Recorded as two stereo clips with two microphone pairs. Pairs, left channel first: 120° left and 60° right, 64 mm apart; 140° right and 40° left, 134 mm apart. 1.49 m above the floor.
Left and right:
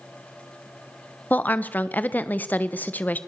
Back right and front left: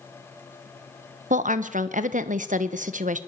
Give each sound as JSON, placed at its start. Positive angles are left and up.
{"t": 1.3, "sound": "a woman speaking", "azimuth_deg": 55, "distance_m": 1.2}